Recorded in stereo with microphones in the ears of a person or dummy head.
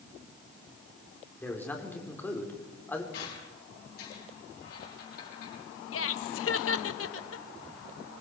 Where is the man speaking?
15° left (ahead or behind), 3.5 m.